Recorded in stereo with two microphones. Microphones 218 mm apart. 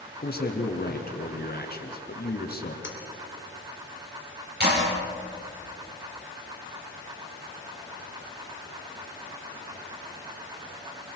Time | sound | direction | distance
0.2 | a man speaking | 45° left (ahead or behind) | 3 m
2.8 | cutlery clinking | 60° left (ahead or behind) | 2 m
4.6 | a clap | 50° right (ahead or behind) | 8 m